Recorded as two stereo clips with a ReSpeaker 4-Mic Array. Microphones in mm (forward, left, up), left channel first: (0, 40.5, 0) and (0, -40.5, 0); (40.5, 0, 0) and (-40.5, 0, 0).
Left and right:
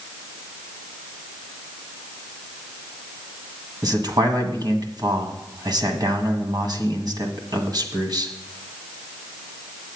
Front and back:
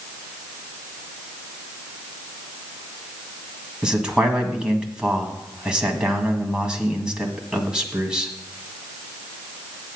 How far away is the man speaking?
About 1.7 m.